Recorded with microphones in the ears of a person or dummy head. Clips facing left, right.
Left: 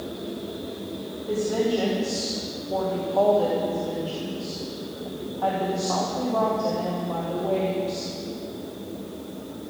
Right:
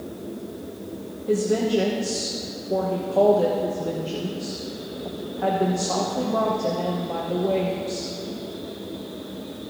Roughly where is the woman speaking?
Right.